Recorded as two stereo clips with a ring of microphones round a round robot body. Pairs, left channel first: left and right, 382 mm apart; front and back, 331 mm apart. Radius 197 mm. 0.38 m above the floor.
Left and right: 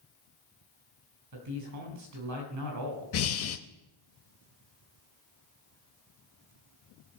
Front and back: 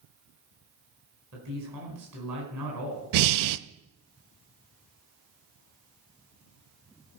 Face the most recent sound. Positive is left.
turn(degrees=145)